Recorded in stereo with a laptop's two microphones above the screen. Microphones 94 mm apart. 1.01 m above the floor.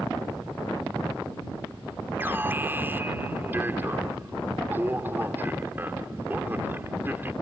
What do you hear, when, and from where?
2.2 s an alarm: 25° right (ahead or behind)